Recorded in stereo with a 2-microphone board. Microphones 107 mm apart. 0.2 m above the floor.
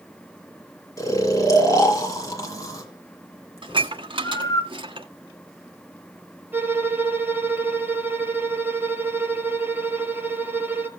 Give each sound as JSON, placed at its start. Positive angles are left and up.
{"t": 1.0, "sound": "snoring", "side_deg": 30, "distance_m": 2.5}
{"t": 3.6, "sound": "dishes clattering", "side_deg": -50, "distance_m": 1.3}
{"t": 6.5, "sound": "a violin", "side_deg": -20, "distance_m": 2.5}